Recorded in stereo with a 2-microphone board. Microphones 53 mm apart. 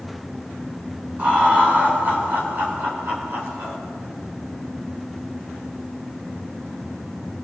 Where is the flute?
No flute in this recording.